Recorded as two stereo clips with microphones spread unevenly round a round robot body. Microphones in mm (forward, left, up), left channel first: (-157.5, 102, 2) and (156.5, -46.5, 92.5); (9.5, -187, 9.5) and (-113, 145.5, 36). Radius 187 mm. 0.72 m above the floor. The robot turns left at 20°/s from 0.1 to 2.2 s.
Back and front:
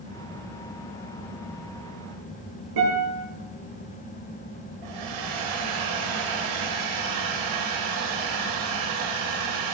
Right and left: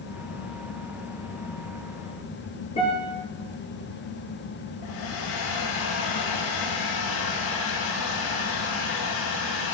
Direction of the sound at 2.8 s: 5° left.